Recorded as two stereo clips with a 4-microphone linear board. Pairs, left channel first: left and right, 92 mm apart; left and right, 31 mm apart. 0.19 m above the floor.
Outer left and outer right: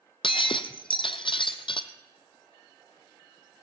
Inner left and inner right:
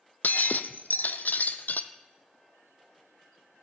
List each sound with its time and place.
0.2 s breaking glass: 85° left, 0.8 m